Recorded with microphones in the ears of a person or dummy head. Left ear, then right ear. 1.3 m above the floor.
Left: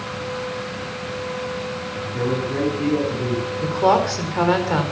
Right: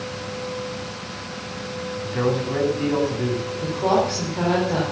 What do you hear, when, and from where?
2.0 s a man speaking: 25° right (ahead or behind), 8.5 m
3.6 s a woman speaking: 60° left (ahead or behind), 4 m